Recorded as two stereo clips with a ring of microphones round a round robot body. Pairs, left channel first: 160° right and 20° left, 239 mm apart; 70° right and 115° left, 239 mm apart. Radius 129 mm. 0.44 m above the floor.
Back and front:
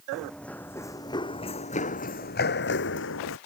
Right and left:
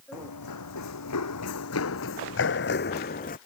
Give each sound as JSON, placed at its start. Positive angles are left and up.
{"t": 0.1, "sound": "running footsteps", "azimuth_deg": -65}